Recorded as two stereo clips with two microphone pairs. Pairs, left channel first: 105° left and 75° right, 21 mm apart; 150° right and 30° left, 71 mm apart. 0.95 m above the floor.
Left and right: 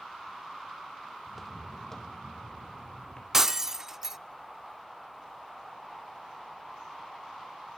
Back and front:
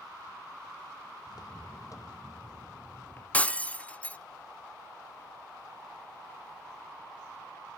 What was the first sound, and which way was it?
Footsteps, 160° right.